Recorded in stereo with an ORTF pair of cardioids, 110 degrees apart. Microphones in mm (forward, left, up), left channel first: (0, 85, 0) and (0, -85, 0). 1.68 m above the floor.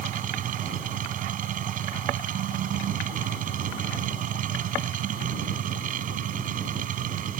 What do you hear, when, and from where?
0.0 s a machine running: 60° right